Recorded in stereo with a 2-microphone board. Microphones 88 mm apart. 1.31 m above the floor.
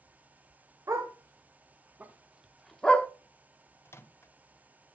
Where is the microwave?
30° left (ahead or behind), 0.5 m.